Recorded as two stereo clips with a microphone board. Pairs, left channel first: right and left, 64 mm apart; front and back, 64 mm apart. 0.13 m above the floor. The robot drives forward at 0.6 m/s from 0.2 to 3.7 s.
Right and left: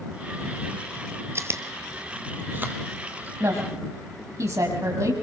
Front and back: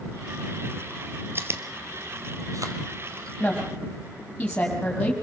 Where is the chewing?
130° left, 1.3 m; by 3.3 s 155° left, 2 m.